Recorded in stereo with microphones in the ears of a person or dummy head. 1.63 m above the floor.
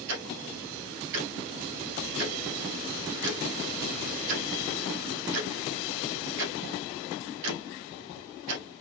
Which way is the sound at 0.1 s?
65° right (ahead or behind).